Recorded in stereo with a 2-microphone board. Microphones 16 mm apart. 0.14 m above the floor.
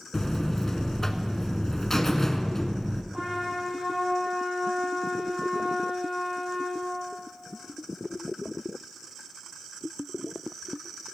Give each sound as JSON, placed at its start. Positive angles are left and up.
{"t": 0.1, "sound": "a buzzer", "side_deg": 25, "distance_m": 0.5}
{"t": 3.1, "sound": "a trumpet", "side_deg": -25, "distance_m": 3.0}